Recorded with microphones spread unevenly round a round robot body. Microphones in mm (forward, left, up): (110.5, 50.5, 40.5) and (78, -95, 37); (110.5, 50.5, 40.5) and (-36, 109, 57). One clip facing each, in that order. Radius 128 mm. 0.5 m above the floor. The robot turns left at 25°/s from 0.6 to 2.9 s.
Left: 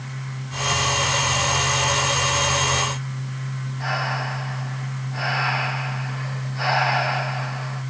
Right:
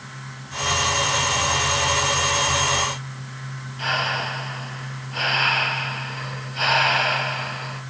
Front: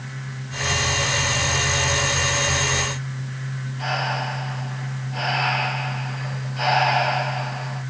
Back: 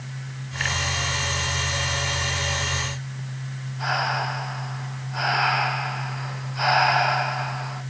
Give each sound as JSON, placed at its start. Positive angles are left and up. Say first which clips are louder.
{"t": 3.8, "sound": "breathing", "louder": "right 1 dB, even", "azimuth_deg": -105, "distance_m": 4.5}